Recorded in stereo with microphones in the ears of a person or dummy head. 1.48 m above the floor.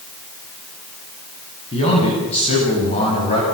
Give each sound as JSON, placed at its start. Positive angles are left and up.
{"t": 1.7, "sound": "a man speaking", "side_deg": 30, "distance_m": 9.5}